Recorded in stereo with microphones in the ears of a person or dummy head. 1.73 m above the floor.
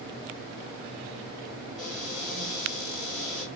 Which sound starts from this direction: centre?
A cupboard door, at 1.8 s.